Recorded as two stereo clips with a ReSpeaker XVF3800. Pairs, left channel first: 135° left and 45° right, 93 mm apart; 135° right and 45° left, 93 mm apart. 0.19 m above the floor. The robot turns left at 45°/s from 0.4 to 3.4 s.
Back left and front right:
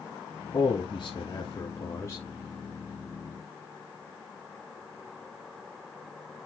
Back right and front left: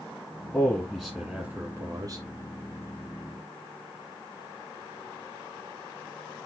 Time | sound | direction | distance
0.5 | a man speaking | 155° left | 1.6 m